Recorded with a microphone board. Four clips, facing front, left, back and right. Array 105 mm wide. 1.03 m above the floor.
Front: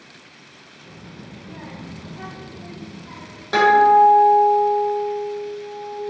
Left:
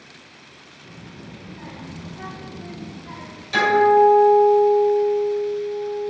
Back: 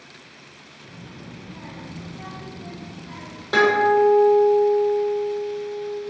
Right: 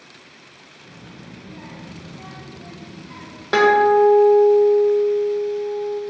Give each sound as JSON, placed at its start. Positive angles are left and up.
{"t": 0.8, "sound": "a child speaking", "azimuth_deg": -15, "distance_m": 1.1}
{"t": 3.5, "sound": "a guitar", "azimuth_deg": -85, "distance_m": 0.9}